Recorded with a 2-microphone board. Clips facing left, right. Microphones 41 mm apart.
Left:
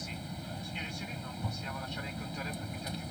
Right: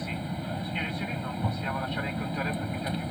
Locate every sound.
0.0 s an aircraft: 25° right (ahead or behind)